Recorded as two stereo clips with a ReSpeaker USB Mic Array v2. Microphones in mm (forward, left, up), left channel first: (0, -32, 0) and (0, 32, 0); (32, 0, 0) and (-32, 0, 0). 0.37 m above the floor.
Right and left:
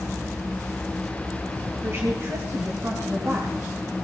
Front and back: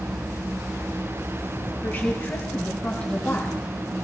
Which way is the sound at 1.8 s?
50° left.